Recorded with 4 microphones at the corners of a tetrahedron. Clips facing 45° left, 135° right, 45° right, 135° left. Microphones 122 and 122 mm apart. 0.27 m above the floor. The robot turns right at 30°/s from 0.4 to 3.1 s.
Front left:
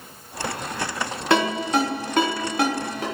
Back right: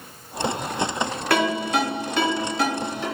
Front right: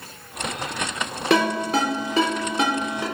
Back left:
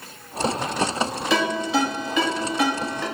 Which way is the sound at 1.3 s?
20° right.